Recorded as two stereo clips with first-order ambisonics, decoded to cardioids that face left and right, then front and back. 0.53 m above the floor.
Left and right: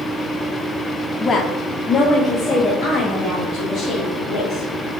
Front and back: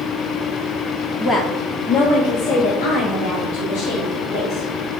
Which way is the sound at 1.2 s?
70° left.